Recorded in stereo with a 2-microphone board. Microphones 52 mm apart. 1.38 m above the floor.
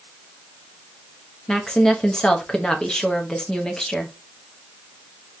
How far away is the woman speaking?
About 0.7 m.